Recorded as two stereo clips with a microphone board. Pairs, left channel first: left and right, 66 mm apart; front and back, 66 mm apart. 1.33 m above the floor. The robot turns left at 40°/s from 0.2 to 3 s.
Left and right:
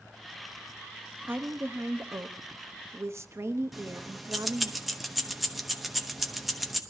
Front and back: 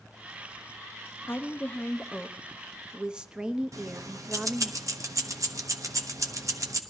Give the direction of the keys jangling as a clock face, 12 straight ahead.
6 o'clock.